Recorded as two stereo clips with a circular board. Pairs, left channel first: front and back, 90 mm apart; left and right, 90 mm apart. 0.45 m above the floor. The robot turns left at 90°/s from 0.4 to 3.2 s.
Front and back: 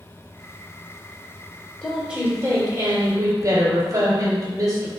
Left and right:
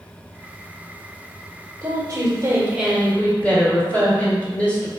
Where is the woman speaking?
80° right, 1.5 m; by 4.9 s 155° left, 1.5 m.